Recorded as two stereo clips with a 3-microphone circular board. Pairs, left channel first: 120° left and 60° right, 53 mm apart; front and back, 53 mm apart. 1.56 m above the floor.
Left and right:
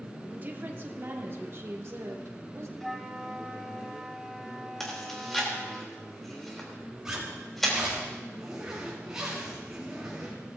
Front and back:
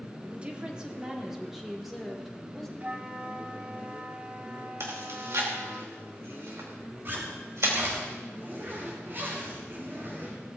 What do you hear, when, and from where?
0.3 s a woman speaking: 115° right, 1.5 m; by 2.7 s 85° right, 2.5 m
2.8 s a flute: 155° right, 1.7 m
4.8 s chewing: 155° right, 3 m
7.0 s a zipper: 140° right, 4.5 m